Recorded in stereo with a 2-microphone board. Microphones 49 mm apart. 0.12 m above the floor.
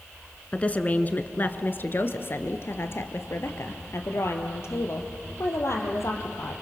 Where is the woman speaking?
25° left (ahead or behind), 1.3 m; by 6.5 s 60° left (ahead or behind), 4 m.